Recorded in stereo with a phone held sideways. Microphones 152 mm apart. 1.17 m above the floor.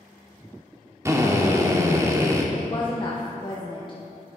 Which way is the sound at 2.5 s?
35° left (ahead or behind).